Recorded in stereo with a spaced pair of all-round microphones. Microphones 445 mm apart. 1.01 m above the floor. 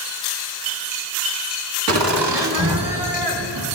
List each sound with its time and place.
1.9 s laughter: 70° right (ahead or behind), 1.6 m; by 3.6 s 65° right (ahead or behind), 4 m